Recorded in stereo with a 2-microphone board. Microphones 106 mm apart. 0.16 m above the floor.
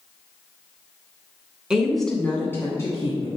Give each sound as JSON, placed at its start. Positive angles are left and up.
{"t": 1.7, "sound": "a woman speaking", "side_deg": -5, "distance_m": 1.3}